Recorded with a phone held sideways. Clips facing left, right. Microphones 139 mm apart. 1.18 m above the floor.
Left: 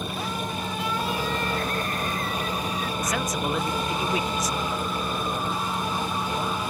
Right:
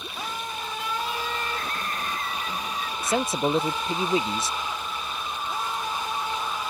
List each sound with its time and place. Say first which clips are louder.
0.0 s a fan: left 4 dB; 50° left (ahead or behind)
3.0 s a man speaking: right 6 dB; 30° right (ahead or behind)